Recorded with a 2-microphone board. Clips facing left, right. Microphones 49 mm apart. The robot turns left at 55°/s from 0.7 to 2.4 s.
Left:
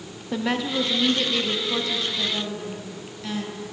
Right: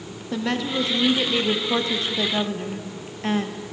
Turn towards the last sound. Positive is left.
turn(degrees=-85)